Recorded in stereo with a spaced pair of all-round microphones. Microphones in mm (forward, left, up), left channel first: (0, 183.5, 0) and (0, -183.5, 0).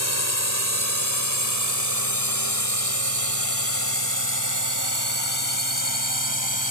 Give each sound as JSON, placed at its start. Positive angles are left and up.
{"t": 0.0, "sound": "a drone", "side_deg": -45}